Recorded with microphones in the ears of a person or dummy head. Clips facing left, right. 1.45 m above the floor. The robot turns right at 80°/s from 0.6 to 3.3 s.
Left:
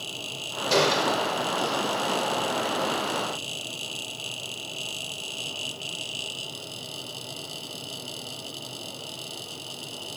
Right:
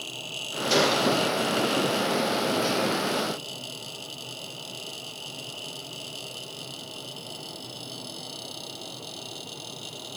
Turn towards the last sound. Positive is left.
turn(degrees=-170)